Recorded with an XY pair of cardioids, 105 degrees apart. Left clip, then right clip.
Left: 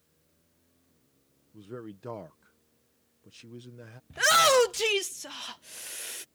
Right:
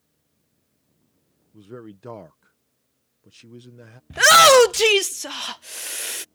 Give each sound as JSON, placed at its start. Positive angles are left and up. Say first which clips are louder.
{"t": 1.5, "sound": "a man speaking", "louder": "right 2 dB", "azimuth_deg": -15}
{"t": 4.1, "sound": "a shout", "louder": "right 10 dB", "azimuth_deg": -60}